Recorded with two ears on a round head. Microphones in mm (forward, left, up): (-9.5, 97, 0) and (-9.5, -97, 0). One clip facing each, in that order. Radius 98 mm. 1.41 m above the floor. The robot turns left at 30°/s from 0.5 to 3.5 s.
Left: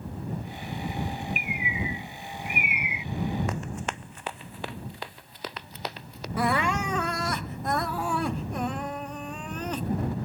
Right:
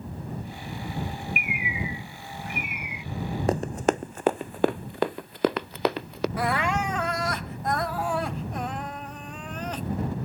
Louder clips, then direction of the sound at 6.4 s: Left 3 dB; 85° left.